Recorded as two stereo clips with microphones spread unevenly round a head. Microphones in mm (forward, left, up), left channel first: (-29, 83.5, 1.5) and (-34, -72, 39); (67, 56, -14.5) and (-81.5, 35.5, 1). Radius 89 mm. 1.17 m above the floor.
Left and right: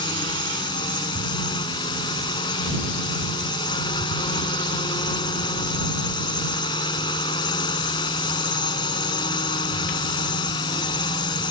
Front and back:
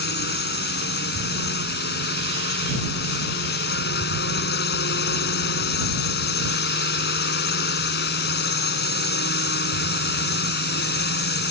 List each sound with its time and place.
0.0 s a drone: 20° left